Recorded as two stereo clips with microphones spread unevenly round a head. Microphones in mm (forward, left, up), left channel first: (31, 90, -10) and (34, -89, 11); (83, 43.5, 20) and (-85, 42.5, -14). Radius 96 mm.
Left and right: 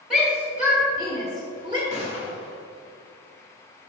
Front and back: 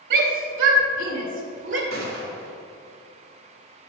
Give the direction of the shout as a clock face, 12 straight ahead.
6 o'clock.